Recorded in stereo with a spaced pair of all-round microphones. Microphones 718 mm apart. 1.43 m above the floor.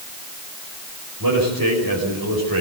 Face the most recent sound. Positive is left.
turn(degrees=-30)  # may be behind; listen again after turning